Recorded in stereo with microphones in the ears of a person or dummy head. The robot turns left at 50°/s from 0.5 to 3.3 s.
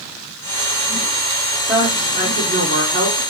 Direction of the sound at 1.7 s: 10° right.